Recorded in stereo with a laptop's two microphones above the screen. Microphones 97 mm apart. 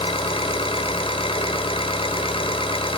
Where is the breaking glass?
I don't hear breaking glass.